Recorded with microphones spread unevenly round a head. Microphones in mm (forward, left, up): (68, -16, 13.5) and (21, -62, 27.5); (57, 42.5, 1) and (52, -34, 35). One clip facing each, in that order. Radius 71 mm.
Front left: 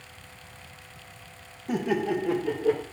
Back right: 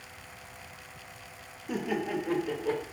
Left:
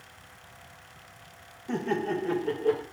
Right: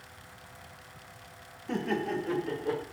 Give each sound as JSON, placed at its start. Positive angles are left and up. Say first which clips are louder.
{"t": 1.7, "sound": "laughter", "louder": "front left 5 dB, left 2 dB", "azimuth_deg": 15, "distance_m": 1.5}